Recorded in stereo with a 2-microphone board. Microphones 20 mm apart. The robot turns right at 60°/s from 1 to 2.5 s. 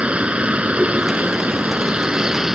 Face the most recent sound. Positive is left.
turn(degrees=-20)